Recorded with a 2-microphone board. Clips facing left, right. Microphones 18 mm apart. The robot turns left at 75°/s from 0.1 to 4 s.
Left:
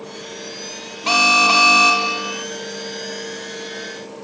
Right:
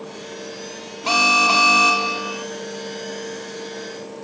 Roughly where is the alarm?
Centre.